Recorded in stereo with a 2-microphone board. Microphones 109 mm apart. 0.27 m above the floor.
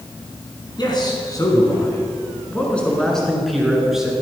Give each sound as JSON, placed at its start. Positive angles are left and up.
{"t": 0.8, "sound": "a man speaking", "side_deg": 45, "distance_m": 3.0}